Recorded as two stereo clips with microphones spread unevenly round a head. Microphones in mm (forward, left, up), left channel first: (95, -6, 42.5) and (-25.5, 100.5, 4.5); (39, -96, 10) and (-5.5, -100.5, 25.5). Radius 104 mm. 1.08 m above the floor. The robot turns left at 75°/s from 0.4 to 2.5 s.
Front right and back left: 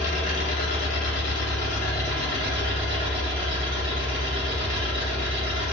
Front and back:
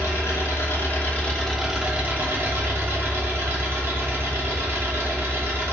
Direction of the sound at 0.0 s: 5° left.